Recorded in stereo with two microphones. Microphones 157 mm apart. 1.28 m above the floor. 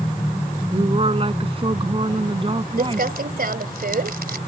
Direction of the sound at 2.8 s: 75° right (ahead or behind).